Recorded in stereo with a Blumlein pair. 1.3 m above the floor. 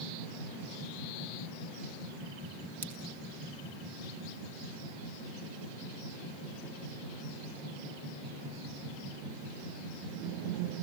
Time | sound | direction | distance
2.8 | scissors | 65° right | 2 m